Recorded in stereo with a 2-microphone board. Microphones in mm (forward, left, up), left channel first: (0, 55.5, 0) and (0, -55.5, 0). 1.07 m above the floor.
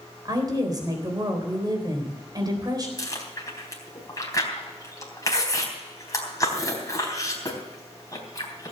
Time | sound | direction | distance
0.2 | a woman speaking | 35° right (ahead or behind) | 3.5 m
3.0 | chewing | 30° left (ahead or behind) | 3.5 m